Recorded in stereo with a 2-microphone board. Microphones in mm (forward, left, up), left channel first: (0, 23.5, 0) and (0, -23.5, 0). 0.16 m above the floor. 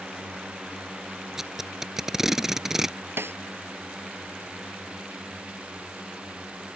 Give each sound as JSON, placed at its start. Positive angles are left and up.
{"t": 0.0, "sound": "a drone", "side_deg": -20}
{"t": 1.4, "sound": "tape being pulled", "side_deg": -5}
{"t": 3.2, "sound": "a snare drum", "side_deg": -60}